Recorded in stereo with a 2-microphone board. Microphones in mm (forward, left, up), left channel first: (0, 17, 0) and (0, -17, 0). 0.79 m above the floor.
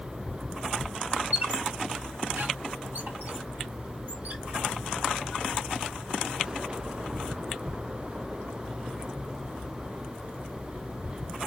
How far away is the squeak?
About 1.8 m.